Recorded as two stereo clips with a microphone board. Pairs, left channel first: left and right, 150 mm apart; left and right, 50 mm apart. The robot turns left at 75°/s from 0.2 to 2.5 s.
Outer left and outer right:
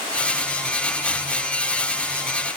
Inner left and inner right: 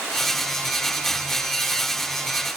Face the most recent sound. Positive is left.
No sound to turn to.